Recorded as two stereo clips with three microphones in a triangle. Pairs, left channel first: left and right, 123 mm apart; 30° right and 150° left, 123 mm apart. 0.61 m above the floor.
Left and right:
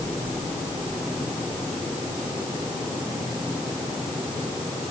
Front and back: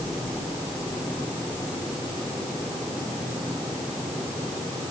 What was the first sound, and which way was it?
Only background noise.